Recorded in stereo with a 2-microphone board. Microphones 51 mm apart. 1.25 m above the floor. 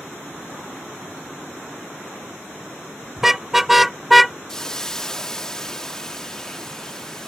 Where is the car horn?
5° right (ahead or behind); by 4.4 s centre (ahead or behind).